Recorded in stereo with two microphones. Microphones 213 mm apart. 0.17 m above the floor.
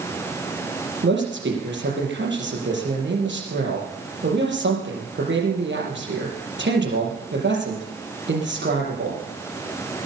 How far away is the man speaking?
About 5 m.